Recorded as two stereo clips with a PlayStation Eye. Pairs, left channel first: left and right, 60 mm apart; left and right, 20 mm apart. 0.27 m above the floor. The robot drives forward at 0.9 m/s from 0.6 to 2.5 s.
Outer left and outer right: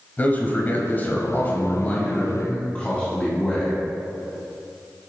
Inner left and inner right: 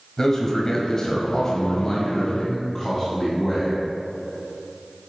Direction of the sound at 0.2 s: 30° left (ahead or behind).